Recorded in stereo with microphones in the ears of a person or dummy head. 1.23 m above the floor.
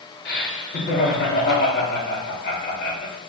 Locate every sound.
0.2 s laughter: 45° left (ahead or behind), 0.7 m